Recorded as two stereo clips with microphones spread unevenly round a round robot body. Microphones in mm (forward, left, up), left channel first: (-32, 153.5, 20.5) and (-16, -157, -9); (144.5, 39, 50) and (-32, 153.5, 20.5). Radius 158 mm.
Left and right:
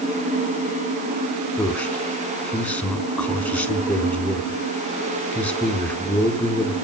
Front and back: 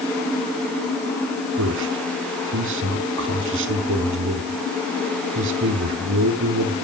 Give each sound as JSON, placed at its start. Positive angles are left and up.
{"t": 1.6, "sound": "a man speaking", "azimuth_deg": 180, "distance_m": 3.5}